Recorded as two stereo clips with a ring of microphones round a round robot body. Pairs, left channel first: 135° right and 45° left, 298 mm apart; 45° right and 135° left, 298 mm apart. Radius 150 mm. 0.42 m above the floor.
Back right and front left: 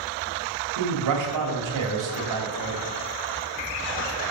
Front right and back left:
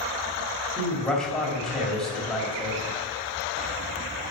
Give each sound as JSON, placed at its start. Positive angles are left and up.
{"t": 0.8, "sound": "a man speaking", "azimuth_deg": 45, "distance_m": 2.5}